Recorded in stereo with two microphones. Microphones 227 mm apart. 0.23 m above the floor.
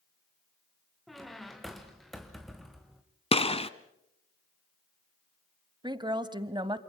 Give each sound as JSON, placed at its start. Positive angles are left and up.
{"t": 1.1, "sound": "a squeak", "side_deg": 0, "distance_m": 2.0}
{"t": 3.3, "sound": "a gunshot", "side_deg": 25, "distance_m": 0.9}
{"t": 5.8, "sound": "a woman speaking", "side_deg": -20, "distance_m": 1.1}